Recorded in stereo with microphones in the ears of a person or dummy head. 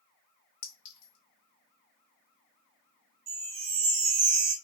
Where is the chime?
40° right (ahead or behind), 0.8 m.